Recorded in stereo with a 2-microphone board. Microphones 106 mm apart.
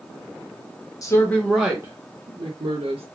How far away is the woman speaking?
About 0.6 m.